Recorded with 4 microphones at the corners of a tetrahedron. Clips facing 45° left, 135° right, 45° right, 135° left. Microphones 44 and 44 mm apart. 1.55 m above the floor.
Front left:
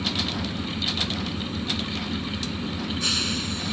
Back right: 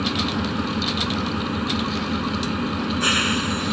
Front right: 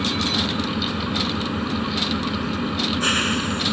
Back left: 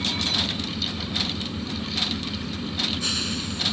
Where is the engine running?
90° right.